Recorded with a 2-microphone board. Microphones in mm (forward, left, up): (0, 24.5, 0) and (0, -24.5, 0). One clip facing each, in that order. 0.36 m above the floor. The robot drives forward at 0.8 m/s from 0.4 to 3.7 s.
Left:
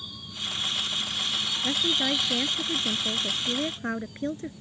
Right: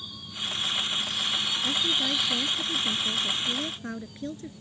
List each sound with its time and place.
1.6 s a woman speaking: 30° left (ahead or behind); by 4.5 s 35° left (ahead or behind)